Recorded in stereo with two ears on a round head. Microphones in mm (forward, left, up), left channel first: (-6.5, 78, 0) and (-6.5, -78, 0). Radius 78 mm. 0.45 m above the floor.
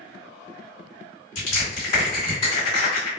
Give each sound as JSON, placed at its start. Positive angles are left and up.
{"t": 1.4, "sound": "crushing", "side_deg": 40, "distance_m": 1.9}